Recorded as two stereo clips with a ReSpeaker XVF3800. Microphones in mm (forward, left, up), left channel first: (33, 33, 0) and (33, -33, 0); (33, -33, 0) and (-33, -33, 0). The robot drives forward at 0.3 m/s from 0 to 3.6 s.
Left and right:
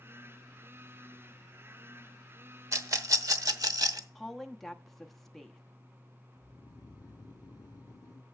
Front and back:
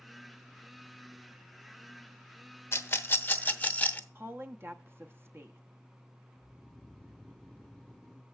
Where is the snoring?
75° left, 0.5 m.